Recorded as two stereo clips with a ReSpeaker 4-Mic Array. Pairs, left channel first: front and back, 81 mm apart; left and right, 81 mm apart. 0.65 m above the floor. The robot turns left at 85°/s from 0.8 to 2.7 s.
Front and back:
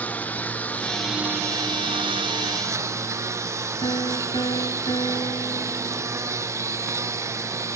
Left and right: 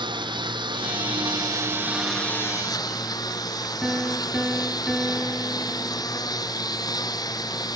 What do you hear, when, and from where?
0.0 s a lawn mower: 70° right; by 7.8 s 125° left
3.8 s a piano: 5° right